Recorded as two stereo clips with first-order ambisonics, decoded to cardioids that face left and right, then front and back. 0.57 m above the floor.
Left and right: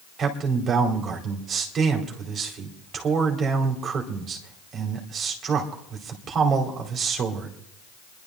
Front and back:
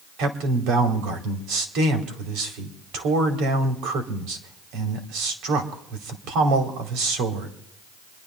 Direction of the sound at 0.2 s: 150° right.